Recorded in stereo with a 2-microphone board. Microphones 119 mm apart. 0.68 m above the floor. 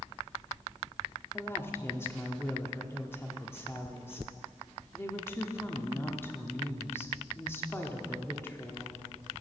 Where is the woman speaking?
20° left (ahead or behind), 1.3 m.